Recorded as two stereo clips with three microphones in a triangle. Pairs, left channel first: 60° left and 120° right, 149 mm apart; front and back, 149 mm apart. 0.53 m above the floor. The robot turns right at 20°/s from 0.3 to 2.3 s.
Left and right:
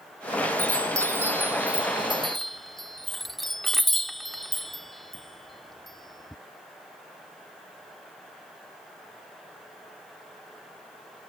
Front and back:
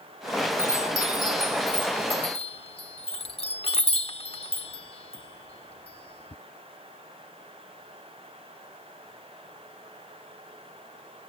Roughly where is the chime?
Ahead right.